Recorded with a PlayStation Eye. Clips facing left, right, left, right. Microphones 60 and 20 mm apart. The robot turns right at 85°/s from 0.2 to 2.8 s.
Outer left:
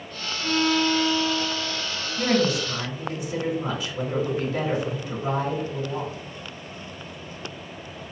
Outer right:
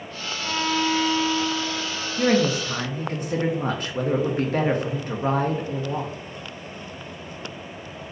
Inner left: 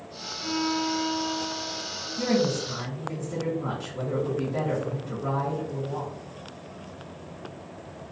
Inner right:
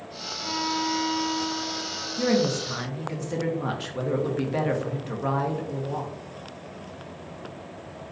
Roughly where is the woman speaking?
Behind.